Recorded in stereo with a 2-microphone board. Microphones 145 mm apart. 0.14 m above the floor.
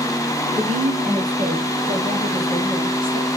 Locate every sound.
0.6 s a woman speaking: 60° right (ahead or behind), 3 m; by 3.3 s 75° right (ahead or behind), 6.5 m